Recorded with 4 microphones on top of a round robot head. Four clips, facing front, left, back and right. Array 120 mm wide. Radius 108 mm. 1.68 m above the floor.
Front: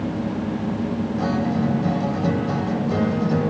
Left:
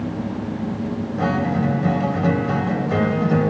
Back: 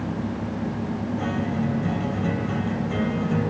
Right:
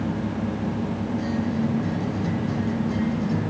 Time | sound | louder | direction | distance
1.2 | a guitar | left 6 dB, front 5 dB | 75° left | ?